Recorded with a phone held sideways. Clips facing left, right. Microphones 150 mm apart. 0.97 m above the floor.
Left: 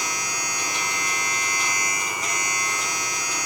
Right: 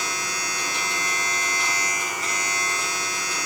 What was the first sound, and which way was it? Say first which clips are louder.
A machine running: even; 15° left (ahead or behind).